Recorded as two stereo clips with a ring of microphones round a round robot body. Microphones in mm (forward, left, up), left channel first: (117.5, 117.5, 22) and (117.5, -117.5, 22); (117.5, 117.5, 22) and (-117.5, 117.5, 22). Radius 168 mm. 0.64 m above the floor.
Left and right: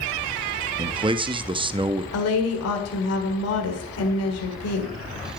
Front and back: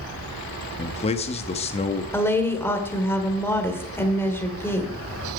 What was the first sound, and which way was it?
A man speaking, 40° right.